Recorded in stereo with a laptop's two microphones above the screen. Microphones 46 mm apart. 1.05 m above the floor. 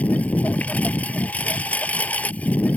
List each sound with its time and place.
0.0 s a lawn mower: 30° left (ahead or behind)